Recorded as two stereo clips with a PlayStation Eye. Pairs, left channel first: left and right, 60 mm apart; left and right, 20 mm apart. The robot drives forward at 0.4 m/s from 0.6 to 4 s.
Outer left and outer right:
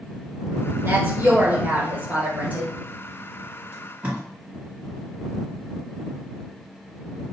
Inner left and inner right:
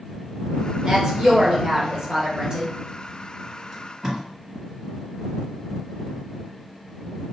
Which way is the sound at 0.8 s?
40° right (ahead or behind).